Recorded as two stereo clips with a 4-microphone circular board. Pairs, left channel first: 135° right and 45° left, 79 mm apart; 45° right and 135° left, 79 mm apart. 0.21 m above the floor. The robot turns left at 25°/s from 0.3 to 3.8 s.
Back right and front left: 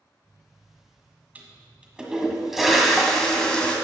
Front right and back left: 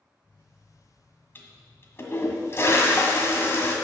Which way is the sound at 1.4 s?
10° right.